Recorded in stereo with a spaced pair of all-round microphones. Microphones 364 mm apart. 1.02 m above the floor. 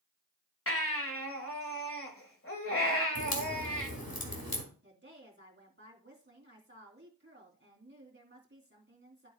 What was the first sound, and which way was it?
A baby crying, 35° left (ahead or behind).